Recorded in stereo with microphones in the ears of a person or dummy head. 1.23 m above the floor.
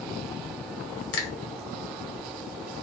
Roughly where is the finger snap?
Left.